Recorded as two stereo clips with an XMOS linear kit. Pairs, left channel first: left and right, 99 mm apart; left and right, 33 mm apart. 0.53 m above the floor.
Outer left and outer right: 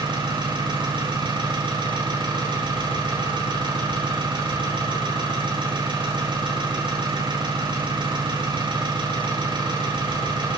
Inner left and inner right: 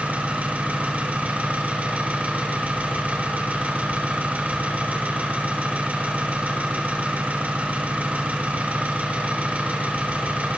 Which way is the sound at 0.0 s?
55° right (ahead or behind).